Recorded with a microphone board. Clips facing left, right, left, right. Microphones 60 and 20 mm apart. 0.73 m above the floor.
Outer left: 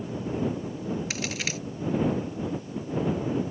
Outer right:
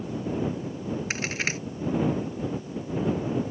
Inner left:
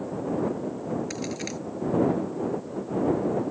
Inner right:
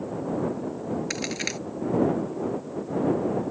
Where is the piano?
No piano in this recording.